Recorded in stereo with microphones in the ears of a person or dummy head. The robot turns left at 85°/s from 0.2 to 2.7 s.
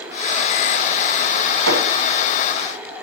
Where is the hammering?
85° right, 4 m; by 1.9 s 70° right (ahead or behind), 4 m.